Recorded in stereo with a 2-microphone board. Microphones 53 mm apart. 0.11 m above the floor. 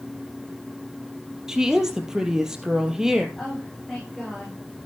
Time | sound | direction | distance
1.5 | a woman speaking | 10° right (ahead or behind) | 3.5 m
3.4 | a woman speaking | centre (ahead or behind) | 7.5 m